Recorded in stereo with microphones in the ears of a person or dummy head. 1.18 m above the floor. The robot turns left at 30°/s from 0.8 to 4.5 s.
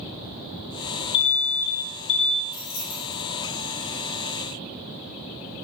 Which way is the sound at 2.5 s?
85° left.